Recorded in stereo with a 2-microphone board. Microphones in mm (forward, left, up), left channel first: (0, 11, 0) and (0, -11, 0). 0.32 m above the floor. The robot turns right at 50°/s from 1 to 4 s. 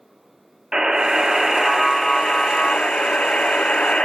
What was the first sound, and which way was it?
A buzzer, 35° right.